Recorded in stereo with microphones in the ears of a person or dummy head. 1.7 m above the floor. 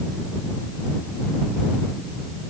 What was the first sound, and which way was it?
Only background noise.